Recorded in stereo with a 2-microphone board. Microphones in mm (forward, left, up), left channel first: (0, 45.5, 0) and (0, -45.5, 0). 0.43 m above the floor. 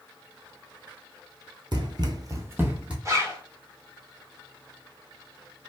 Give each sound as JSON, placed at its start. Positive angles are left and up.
{"t": 1.7, "sound": "running footsteps", "side_deg": -55, "distance_m": 0.7}
{"t": 3.0, "sound": "a zipper", "side_deg": -35, "distance_m": 1.1}